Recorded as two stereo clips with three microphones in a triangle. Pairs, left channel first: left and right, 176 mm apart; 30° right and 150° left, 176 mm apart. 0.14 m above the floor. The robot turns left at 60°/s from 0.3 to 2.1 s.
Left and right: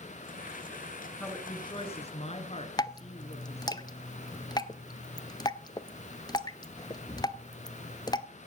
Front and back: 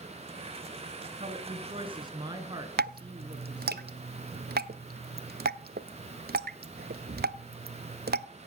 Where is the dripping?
150° left, 0.5 m.